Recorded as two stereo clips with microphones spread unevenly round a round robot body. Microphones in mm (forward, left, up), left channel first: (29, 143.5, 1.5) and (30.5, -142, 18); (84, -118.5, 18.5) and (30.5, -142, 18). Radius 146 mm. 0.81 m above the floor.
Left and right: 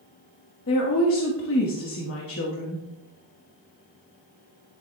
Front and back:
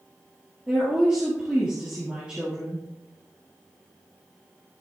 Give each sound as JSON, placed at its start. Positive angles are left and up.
{"t": 0.7, "sound": "a woman speaking", "azimuth_deg": 130, "distance_m": 1.4}